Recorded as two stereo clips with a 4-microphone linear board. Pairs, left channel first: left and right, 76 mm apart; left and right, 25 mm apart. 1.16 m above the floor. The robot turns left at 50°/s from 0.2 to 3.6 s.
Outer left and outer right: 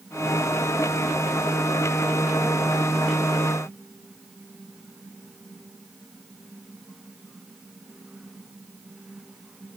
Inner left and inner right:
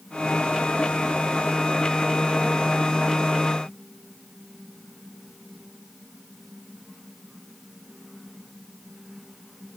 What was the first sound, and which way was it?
Only background noise.